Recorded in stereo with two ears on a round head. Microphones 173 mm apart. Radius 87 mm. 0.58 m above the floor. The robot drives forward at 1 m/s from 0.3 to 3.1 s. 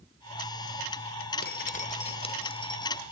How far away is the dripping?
About 1.2 m.